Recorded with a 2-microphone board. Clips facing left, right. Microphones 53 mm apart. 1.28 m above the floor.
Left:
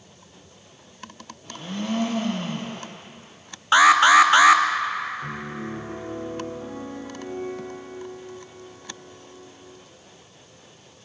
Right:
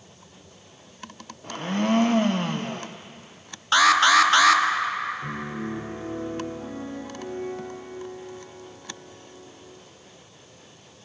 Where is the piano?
10° right (ahead or behind), 4 m.